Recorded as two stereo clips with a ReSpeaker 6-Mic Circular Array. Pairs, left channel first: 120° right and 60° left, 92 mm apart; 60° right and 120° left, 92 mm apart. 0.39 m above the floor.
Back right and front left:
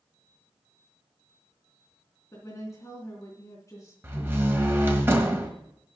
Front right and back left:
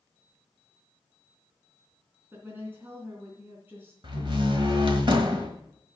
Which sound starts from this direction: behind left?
A door slam, at 4.0 s.